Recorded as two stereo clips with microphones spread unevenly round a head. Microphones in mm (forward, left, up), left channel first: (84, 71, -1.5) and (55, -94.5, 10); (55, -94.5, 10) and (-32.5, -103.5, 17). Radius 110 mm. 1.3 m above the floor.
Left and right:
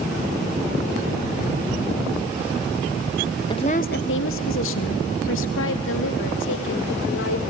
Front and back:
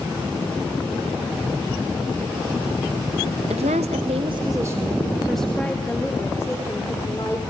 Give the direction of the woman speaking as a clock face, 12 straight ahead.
7 o'clock.